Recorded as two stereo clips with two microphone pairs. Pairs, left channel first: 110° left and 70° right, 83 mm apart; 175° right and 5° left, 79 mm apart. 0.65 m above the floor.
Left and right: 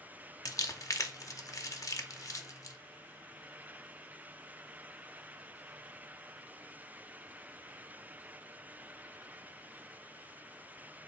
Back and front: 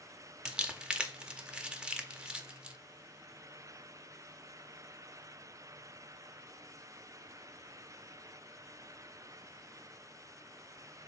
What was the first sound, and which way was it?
Crumpling, 80° left.